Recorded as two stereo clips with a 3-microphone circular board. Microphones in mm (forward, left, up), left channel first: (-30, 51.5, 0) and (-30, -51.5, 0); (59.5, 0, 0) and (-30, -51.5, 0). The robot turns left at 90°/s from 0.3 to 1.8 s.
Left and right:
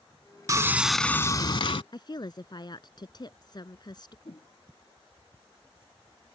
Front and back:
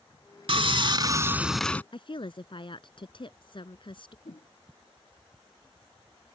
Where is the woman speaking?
55° left.